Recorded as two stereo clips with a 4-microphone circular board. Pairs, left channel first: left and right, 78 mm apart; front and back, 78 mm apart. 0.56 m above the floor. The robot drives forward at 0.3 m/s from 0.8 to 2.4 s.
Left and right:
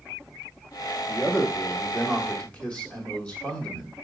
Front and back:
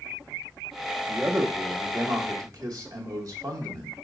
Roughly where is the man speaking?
Behind left.